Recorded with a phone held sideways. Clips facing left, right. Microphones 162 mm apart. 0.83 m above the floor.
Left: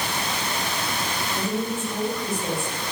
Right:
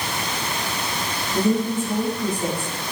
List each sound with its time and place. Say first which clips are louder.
1.3 s a woman speaking: right 8 dB; 40° right (ahead or behind), 5.5 m